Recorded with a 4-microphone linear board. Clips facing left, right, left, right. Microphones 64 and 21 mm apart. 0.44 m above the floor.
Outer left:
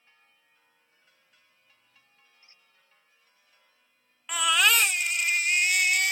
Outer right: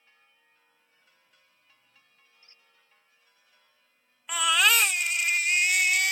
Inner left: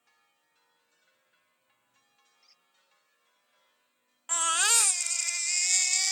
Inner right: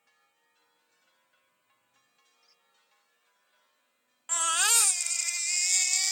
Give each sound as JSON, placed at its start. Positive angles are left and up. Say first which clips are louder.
{"t": 2.4, "sound": "a squeak", "louder": "even, inner left 5 dB", "side_deg": 20}
{"t": 4.3, "sound": "a baby crying", "louder": "even, even", "side_deg": 0}